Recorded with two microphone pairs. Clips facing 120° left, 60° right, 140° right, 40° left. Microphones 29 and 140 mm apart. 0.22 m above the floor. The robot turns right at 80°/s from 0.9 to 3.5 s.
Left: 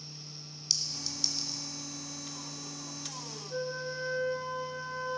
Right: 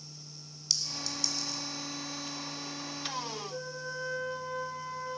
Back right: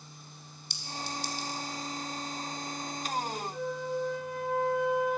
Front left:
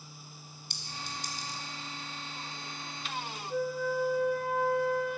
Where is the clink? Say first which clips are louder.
Right 1 dB, back right 5 dB; 30° left, 1.5 m; by 1.6 s 90° left, 1.5 m.